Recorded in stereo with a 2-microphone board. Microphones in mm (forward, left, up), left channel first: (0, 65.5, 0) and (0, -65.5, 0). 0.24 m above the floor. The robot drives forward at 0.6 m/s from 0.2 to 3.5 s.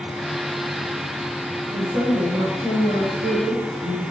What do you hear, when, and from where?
1.7 s a woman speaking: 40° right (ahead or behind), 4.5 m; by 4.0 s 35° right (ahead or behind), 5 m